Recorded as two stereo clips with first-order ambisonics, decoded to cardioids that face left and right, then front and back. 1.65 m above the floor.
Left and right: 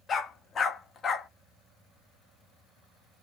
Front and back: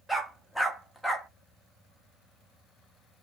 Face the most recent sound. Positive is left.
turn(degrees=90)